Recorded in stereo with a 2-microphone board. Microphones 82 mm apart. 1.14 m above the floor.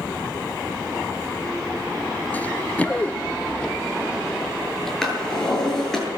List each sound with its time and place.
2.3 s running footsteps: 20° left (ahead or behind), 1.1 m; by 4.9 s 5° left (ahead or behind), 2 m
5.0 s a drawer: 5° left (ahead or behind), 8.5 m